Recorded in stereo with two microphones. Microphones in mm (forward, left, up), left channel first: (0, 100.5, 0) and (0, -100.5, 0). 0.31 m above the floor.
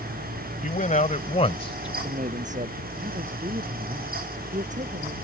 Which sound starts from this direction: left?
A man speaking, at 0.6 s.